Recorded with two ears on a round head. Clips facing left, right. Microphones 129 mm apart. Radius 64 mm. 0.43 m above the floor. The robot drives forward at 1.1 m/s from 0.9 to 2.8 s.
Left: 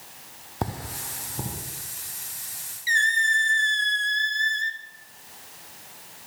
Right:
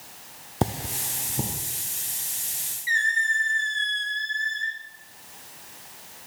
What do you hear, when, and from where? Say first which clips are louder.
0.6 s cutlery clinking: right 4 dB; 25° right (ahead or behind), 0.5 m; by 1.6 s 15° right (ahead or behind), 0.8 m
2.9 s a squeak: left 2 dB; 45° left (ahead or behind), 0.7 m